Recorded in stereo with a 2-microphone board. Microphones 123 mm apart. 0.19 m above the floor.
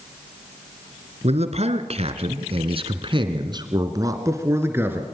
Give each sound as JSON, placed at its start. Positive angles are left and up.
{"t": 1.2, "sound": "a man speaking", "side_deg": -60, "distance_m": 2.5}